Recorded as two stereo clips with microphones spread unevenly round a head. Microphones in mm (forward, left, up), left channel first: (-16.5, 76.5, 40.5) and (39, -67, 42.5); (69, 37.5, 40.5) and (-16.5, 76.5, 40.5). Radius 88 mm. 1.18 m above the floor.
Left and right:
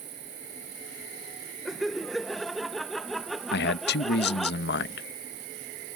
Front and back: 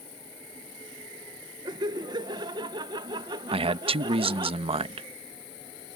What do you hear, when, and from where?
0.0 s an insect: 70° right
1.6 s laughter: 160° right
3.5 s a man speaking: 130° left